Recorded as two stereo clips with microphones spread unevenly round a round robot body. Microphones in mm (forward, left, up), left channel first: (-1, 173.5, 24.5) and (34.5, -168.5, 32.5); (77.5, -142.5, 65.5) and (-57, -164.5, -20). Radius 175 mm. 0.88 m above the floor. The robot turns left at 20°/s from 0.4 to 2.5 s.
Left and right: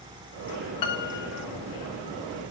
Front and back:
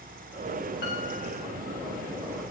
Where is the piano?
70° left, 1.1 m; by 1.5 s 55° left, 1.1 m.